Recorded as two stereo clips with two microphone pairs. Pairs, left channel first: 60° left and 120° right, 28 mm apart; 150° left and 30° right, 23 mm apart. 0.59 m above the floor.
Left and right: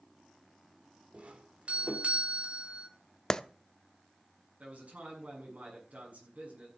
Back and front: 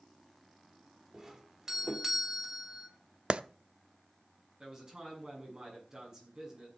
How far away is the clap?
About 0.7 m.